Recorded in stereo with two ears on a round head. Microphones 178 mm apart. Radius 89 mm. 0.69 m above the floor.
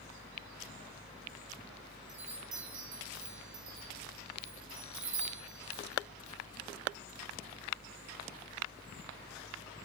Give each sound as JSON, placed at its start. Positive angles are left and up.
{"t": 2.1, "sound": "a chime", "side_deg": -60, "distance_m": 4.5}